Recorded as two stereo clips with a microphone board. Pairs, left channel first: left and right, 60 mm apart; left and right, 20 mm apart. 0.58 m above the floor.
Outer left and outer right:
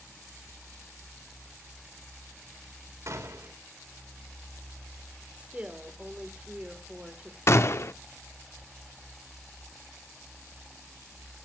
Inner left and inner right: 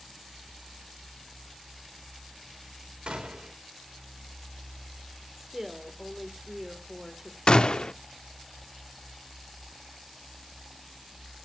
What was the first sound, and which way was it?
A gunshot, 60° right (ahead or behind).